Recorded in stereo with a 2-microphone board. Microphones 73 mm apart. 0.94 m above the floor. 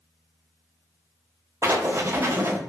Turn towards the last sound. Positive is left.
turn(degrees=-40)  # may be behind; listen again after turning